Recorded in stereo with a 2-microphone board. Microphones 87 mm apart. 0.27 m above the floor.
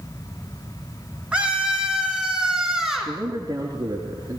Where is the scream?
15° right (ahead or behind), 3 m; by 3.1 s 5° right (ahead or behind), 4 m.